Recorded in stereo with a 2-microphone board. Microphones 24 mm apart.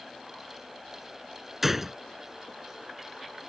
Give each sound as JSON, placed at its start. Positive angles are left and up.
{"t": 1.6, "sound": "a gunshot", "side_deg": -15}